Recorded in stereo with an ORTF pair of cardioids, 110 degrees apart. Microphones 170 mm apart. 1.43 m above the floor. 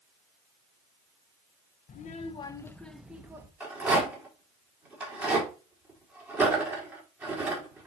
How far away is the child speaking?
About 0.9 m.